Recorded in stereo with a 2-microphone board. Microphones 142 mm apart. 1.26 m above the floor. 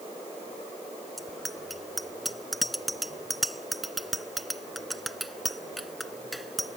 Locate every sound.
1.2 s a bicycle bell: centre (ahead or behind)